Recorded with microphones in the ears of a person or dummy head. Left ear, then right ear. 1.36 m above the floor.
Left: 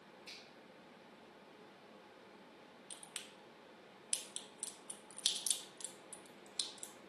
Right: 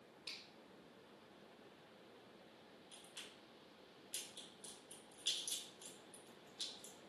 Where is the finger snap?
30° right (ahead or behind), 2.5 m.